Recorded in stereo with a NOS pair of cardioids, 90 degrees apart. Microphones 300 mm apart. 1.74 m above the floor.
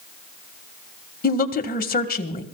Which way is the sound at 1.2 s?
30° left.